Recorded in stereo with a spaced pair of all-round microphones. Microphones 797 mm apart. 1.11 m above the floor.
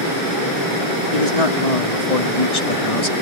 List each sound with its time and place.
1.1 s a man speaking: 50° left (ahead or behind); by 3.1 s 40° left (ahead or behind)